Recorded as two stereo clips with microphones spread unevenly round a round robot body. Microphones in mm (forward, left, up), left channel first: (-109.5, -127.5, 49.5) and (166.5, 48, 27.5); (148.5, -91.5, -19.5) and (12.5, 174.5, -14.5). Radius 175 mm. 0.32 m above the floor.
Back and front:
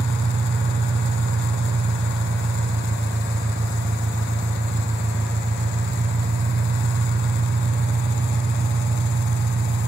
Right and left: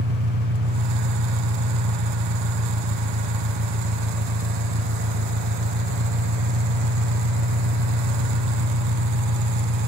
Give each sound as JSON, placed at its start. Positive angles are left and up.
{"t": 0.0, "sound": "an engine running", "azimuth_deg": 115, "distance_m": 1.3}